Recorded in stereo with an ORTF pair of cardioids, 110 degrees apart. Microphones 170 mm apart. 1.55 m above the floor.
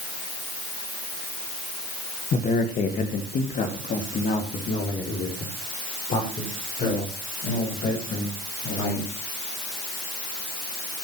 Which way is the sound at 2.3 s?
55° left.